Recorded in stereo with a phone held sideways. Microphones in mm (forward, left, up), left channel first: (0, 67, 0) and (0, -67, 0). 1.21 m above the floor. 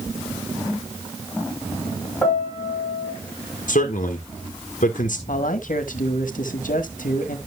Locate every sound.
2.2 s a piano: 5° left (ahead or behind), 5 m
3.7 s a man speaking: 75° left (ahead or behind), 1.2 m
5.3 s a man speaking: 80° left, 1.4 m